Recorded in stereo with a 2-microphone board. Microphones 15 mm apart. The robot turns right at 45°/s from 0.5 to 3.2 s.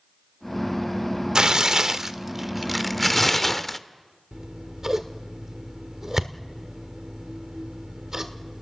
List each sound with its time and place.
1.4 s tearing paper: 75° right, 0.7 m; by 3.8 s 5° left, 0.7 m
4.3 s scissors: 30° right (ahead or behind), 1.5 m